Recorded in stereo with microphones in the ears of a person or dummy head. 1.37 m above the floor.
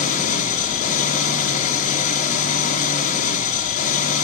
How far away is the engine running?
About 1.7 m.